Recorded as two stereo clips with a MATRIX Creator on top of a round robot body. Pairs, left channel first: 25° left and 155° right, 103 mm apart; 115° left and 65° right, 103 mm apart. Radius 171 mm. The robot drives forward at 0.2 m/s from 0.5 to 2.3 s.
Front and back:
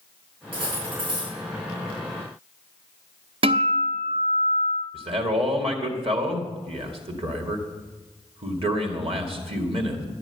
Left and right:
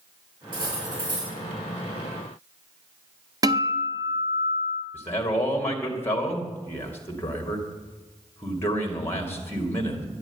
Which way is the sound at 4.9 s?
Straight behind.